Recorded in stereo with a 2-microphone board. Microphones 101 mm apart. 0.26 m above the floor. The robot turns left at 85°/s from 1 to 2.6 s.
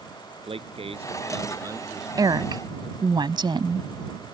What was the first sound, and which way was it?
A man speaking, 85° right.